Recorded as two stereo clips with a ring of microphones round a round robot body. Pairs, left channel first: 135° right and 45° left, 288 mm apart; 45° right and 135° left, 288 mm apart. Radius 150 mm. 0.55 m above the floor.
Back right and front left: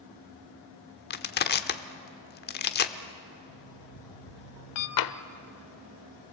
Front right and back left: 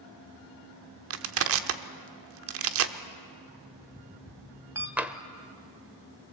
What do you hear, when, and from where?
1.1 s crushing: 170° left, 1.0 m
3.5 s an alarm clock: 145° right, 1.8 m
5.0 s tapping: 140° right, 0.8 m